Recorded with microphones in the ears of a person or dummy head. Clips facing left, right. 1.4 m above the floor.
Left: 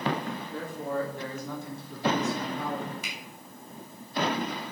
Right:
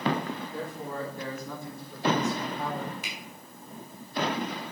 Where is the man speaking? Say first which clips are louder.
Left 3 dB; 65° left (ahead or behind), 4 m; by 2.9 s 50° left (ahead or behind), 3.5 m.